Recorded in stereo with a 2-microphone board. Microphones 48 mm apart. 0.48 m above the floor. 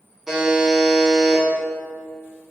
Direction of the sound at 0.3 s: 5° right (ahead or behind).